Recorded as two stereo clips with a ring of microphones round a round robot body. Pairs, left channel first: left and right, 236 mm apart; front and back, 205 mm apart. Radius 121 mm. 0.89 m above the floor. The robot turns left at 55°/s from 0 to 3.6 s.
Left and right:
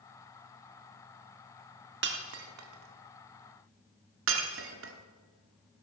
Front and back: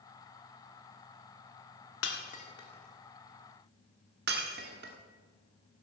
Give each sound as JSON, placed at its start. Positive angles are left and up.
{"t": 2.0, "sound": "breaking glass", "azimuth_deg": -40, "distance_m": 1.3}